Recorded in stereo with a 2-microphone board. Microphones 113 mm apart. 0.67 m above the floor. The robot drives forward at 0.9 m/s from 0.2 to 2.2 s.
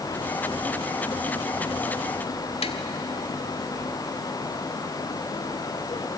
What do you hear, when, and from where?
2.6 s tapping: 70° left (ahead or behind), 1.5 m